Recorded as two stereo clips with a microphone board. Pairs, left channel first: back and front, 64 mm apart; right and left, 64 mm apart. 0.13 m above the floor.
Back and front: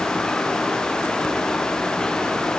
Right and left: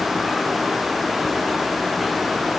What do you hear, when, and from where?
Only background noise.